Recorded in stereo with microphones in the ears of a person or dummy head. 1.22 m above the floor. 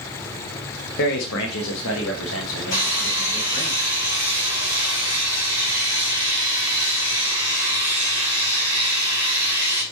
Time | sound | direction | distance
1.0 | a man speaking | 60° left (ahead or behind) | 1.1 m
2.7 | sawing | 55° left (ahead or behind) | 4.5 m